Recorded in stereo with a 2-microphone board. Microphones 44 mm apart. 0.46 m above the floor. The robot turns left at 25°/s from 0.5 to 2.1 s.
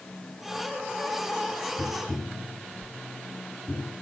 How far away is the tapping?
About 4.5 m.